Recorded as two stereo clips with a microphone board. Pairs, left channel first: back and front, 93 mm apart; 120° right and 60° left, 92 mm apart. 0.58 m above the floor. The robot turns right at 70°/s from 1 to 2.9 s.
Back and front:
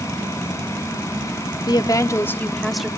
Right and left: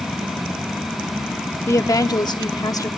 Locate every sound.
1.7 s a woman speaking: 170° right, 0.8 m; by 2.9 s 80° right, 0.8 m